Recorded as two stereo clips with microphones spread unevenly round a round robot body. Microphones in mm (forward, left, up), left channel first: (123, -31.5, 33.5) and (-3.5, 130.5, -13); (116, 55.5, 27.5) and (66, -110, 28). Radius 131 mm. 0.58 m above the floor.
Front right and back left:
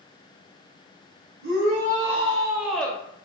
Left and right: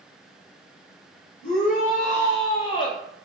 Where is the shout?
130° left, 1.2 m; by 3.0 s 35° left, 0.7 m.